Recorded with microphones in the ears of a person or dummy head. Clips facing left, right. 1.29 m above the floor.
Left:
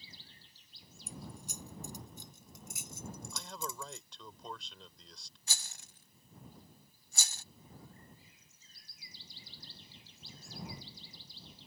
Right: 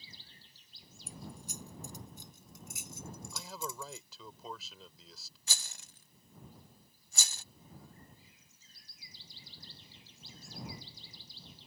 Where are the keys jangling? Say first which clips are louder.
Even; 85° left; by 4.1 s 75° left (ahead or behind).